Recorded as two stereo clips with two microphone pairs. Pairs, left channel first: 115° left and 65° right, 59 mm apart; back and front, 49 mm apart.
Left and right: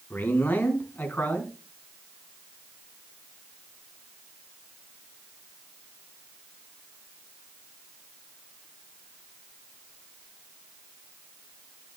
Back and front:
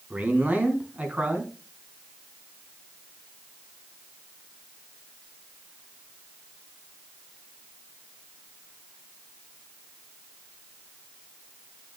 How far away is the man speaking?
About 4 m.